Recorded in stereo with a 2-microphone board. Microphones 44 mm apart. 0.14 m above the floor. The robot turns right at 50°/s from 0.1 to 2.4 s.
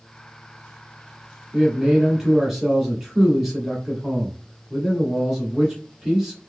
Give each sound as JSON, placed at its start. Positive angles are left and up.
{"t": 1.5, "sound": "a man speaking", "side_deg": -20, "distance_m": 1.2}